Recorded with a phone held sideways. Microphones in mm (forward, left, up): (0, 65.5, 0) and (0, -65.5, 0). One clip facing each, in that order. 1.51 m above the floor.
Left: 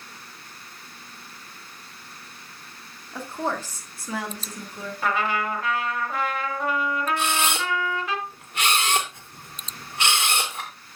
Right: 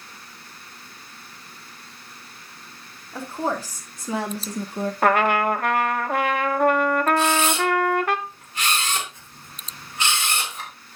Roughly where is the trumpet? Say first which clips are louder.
Right 6 dB; right.